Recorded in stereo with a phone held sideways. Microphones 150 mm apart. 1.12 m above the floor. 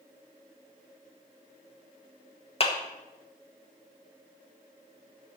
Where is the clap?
40° left (ahead or behind), 1.3 m.